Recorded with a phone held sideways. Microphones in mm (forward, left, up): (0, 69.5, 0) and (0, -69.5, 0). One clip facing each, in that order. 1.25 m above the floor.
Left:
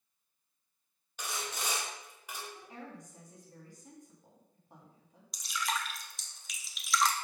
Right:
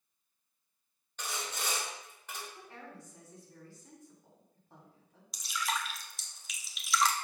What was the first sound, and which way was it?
Sawing, 10° left (ahead or behind).